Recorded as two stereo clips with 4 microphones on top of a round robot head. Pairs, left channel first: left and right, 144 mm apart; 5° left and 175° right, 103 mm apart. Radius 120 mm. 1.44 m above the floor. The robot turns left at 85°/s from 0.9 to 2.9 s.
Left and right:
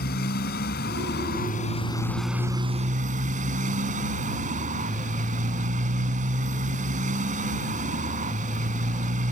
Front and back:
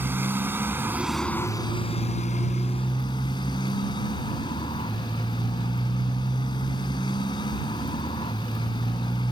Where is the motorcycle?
115° left; by 9.3 s 55° right.